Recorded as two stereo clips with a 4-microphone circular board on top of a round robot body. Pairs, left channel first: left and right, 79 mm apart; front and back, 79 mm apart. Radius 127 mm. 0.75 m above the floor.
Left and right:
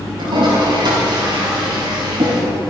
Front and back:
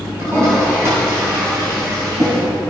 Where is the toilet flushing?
120° right, 3 m.